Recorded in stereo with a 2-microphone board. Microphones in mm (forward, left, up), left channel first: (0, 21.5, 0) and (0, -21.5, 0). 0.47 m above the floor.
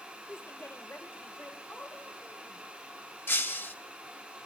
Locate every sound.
0.3 s a woman speaking: 60° left (ahead or behind), 1.6 m; by 2.6 s 45° left (ahead or behind), 2.5 m
3.3 s breaking glass: 60° left (ahead or behind), 1.4 m